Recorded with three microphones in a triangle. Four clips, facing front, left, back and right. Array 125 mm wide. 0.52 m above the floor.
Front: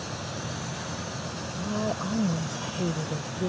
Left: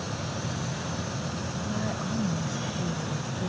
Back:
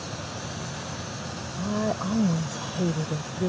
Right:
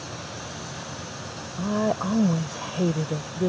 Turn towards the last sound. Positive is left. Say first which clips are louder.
# right 10 dB, back 3 dB
turn(degrees=-100)